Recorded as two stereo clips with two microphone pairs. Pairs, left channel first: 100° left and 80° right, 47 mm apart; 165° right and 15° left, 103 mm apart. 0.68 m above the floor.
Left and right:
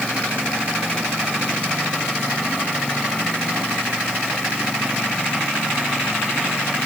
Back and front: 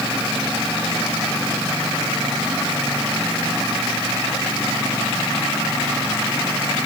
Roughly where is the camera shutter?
No camera shutter in this recording.